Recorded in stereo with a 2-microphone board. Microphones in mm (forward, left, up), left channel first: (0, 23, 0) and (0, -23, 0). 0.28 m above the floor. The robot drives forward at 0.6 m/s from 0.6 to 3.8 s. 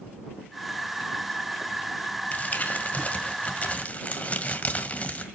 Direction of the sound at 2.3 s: 35° left (ahead or behind).